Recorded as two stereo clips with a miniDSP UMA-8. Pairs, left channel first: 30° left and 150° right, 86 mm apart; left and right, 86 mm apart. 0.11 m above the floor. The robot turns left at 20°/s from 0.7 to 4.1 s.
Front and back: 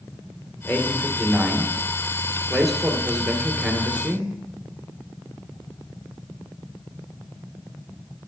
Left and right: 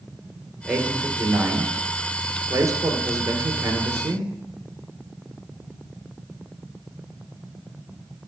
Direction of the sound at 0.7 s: 20° right.